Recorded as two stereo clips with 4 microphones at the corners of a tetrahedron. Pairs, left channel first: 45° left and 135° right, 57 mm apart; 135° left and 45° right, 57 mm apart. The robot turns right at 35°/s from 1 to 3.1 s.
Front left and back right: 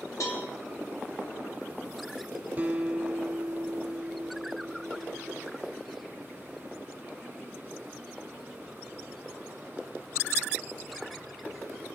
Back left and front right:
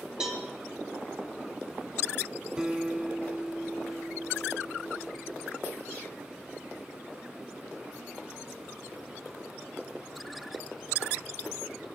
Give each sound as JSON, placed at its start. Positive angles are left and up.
{"t": 0.2, "sound": "a cowbell", "azimuth_deg": 30, "distance_m": 3.5}
{"t": 2.6, "sound": "a guitar", "azimuth_deg": -100, "distance_m": 1.1}